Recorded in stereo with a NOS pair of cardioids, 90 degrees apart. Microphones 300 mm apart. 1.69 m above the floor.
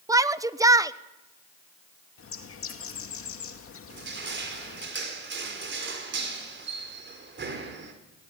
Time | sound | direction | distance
0.1 | a shout | 10° right | 1.1 m
2.2 | a bird | 45° left | 2.5 m
3.9 | crushing | 40° right | 4.5 m